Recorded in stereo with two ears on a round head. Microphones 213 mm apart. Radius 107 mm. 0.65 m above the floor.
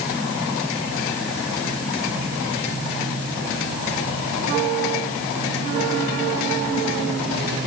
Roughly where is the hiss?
No hiss in this recording.